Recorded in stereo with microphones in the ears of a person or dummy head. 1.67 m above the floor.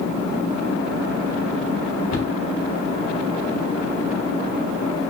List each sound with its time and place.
2.1 s a cupboard door: 75° left (ahead or behind), 1.0 m